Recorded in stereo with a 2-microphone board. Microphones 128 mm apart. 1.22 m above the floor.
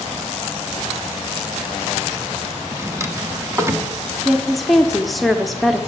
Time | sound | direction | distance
2.7 | a drawer | 20° right (ahead or behind) | 0.8 m
4.2 | a woman speaking | centre (ahead or behind) | 0.6 m